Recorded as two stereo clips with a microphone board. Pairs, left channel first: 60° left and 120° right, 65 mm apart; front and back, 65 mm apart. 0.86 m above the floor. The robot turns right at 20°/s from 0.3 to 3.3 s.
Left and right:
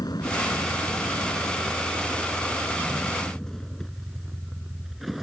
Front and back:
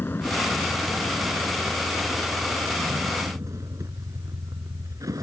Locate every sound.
0.0 s a vehicle: 55° left; by 5.2 s 155° left